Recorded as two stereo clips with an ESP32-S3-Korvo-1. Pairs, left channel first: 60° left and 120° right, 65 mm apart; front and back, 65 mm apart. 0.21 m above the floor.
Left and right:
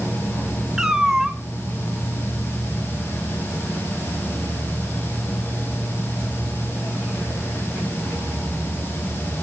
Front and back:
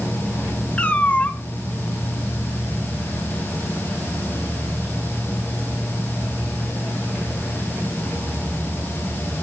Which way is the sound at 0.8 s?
45° right.